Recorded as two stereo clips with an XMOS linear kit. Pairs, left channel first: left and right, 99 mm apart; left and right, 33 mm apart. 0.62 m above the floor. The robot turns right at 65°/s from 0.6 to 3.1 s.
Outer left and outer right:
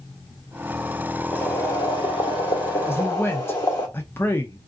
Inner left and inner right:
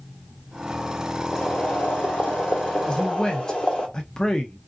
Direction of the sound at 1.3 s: 30° left.